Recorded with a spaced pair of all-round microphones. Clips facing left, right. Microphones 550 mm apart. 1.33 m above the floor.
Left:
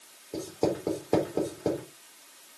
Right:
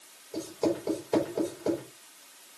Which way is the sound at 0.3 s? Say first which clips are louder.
Even; 70° left (ahead or behind).